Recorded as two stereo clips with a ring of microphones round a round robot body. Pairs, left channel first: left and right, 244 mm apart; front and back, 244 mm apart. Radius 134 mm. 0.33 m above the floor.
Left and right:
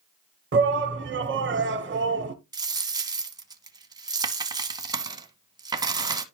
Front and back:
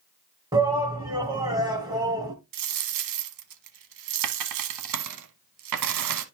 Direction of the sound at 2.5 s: 165° right.